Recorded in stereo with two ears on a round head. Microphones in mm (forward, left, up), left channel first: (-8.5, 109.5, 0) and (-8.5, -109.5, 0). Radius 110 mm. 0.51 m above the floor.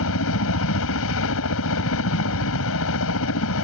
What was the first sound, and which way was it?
A helicopter, 60° left (ahead or behind).